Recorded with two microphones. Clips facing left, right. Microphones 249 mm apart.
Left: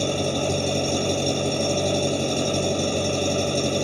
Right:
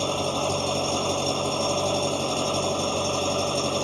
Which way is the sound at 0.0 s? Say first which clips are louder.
Left 3 dB; 20° left (ahead or behind).